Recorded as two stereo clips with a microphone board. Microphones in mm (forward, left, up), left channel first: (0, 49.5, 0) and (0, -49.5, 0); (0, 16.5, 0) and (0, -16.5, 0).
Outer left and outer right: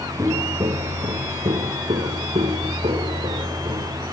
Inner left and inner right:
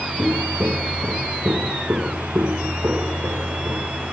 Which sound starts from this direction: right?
Footsteps, at 0.2 s.